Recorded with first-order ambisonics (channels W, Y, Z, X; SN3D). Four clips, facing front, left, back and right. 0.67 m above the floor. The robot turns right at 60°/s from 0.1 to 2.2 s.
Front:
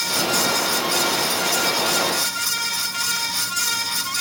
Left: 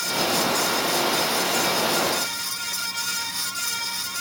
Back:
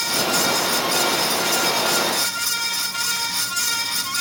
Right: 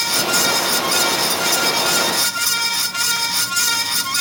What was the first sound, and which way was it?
Only background noise.